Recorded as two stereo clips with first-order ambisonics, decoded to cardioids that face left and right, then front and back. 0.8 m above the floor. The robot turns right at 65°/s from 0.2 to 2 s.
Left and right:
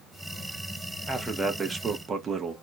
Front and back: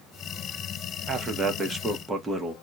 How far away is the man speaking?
About 0.6 m.